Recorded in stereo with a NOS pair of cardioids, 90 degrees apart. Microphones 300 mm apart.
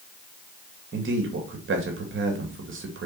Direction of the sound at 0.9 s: 45° right.